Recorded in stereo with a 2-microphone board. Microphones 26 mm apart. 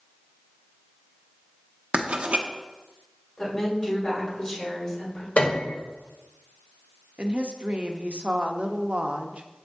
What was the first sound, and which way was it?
Writing, 50° right (ahead or behind).